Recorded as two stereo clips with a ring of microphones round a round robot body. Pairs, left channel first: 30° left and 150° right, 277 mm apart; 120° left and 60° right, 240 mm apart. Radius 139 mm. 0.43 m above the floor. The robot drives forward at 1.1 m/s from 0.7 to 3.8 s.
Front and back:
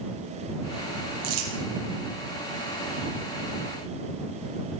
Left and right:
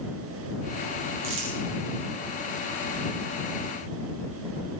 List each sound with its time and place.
1.2 s crumpling: 110° right, 5 m; by 1.5 s 115° right, 5 m